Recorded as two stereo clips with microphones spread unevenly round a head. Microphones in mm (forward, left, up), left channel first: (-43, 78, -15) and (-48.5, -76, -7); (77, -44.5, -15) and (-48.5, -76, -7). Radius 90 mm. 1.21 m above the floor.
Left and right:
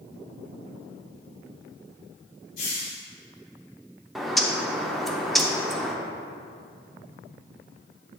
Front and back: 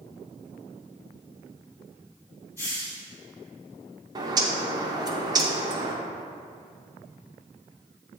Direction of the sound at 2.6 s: 95° left.